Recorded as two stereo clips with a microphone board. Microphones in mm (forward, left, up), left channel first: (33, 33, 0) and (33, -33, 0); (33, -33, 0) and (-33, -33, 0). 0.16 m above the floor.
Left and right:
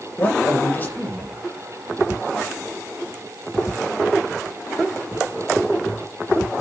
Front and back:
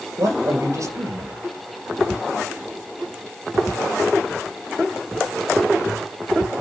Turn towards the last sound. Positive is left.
turn(degrees=150)